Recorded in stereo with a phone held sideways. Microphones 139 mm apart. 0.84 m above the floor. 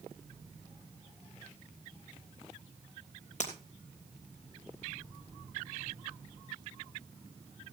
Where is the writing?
No writing in this recording.